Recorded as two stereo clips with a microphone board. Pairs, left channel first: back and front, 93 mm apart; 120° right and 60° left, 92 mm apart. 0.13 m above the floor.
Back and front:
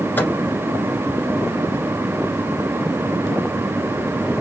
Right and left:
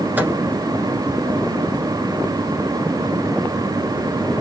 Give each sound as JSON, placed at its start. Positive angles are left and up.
{"t": 0.2, "sound": "a microwave", "azimuth_deg": 120, "distance_m": 1.2}